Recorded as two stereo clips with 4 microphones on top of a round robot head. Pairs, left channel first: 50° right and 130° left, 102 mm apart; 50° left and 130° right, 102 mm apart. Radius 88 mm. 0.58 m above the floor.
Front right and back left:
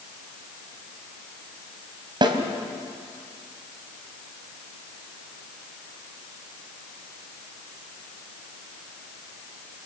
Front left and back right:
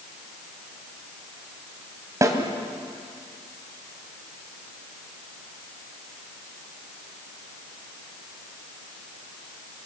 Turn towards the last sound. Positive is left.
turn(degrees=170)